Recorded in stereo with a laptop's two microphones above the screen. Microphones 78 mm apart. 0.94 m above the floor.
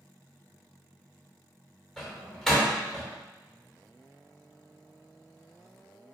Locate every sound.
2.0 s a door slam: centre (ahead or behind), 3 m